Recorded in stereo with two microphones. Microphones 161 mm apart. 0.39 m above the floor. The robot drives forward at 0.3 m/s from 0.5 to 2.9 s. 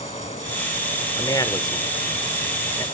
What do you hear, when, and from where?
1.2 s a man speaking: 20° left (ahead or behind), 1.1 m